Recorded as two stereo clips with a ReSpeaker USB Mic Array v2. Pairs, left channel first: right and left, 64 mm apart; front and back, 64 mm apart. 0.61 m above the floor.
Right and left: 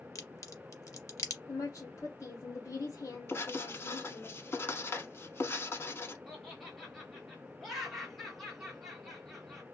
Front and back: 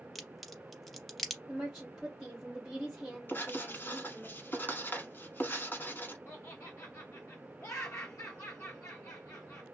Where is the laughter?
Straight ahead, 0.7 m.